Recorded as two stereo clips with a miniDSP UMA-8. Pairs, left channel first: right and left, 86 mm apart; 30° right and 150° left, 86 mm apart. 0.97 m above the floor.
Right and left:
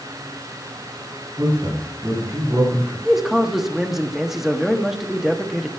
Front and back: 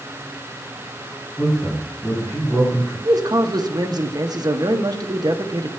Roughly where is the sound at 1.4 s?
Ahead left.